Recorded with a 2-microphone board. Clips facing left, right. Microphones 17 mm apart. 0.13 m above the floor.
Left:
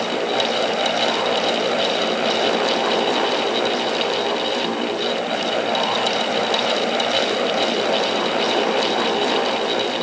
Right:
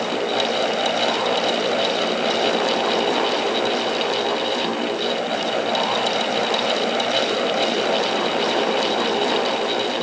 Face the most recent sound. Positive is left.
No sound to turn to.